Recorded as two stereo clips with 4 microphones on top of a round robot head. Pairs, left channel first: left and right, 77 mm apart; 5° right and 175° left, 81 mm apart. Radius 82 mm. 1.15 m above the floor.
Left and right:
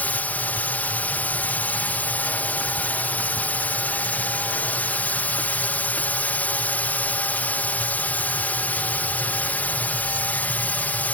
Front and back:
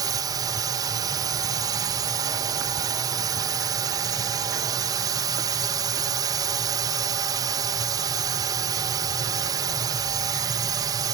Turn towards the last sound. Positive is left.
turn(degrees=155)